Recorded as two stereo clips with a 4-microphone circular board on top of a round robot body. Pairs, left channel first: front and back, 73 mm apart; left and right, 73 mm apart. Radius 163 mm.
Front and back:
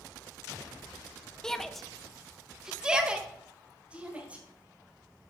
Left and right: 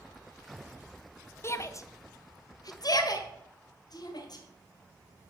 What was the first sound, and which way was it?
A shout, 75° left.